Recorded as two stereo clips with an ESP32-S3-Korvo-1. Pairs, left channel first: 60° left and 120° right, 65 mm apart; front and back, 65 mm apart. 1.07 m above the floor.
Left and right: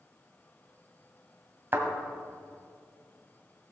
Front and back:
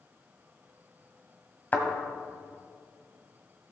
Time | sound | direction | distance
1.7 | a thud | 65° right | 1.9 m